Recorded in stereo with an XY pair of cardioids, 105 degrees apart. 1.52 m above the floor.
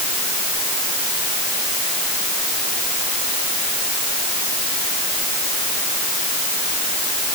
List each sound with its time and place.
Only background noise.